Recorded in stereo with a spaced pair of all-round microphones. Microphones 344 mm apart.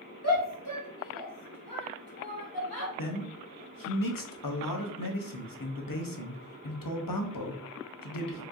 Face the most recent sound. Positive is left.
turn(degrees=70)  # may be behind; listen again after turning